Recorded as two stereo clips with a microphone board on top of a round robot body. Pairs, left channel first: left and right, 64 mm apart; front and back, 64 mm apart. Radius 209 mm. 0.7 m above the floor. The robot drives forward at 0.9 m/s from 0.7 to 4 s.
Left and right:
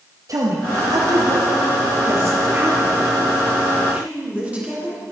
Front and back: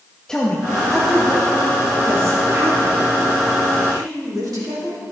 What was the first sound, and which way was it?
A woman speaking, 80° right.